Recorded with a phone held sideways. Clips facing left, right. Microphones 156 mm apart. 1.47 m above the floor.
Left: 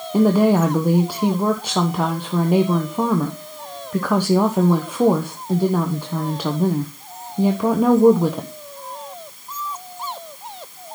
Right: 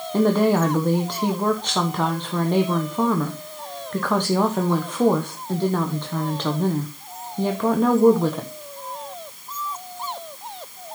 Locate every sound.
0.1 s a woman speaking: 10° left (ahead or behind), 1.0 m